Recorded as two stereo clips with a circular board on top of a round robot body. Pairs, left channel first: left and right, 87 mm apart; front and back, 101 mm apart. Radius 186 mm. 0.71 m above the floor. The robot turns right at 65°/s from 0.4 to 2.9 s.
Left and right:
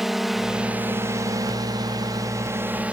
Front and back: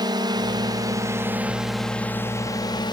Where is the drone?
175° right; by 2.9 s 20° right.